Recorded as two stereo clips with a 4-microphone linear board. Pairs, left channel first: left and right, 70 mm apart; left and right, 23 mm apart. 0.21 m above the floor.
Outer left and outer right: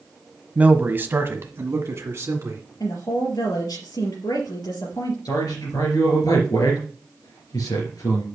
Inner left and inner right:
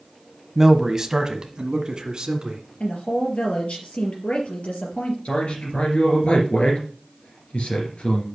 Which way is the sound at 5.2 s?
70° left (ahead or behind).